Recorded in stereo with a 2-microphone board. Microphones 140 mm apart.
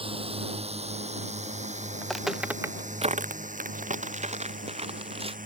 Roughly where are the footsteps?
Centre.